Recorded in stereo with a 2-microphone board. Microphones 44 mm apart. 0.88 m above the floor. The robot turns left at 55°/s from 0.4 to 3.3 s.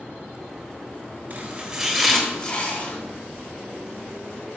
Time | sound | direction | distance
1.3 | chopping | 40° right (ahead or behind) | 1.8 m